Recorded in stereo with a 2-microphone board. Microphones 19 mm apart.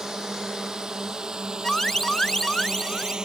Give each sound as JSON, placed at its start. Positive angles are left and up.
{"t": 0.0, "sound": "a drone", "side_deg": -35}
{"t": 1.6, "sound": "an alarm", "side_deg": 30}